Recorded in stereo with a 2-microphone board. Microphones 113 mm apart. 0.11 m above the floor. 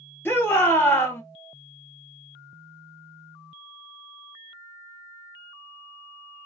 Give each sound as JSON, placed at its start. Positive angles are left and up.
{"t": 0.2, "sound": "a shout", "side_deg": 20, "distance_m": 1.7}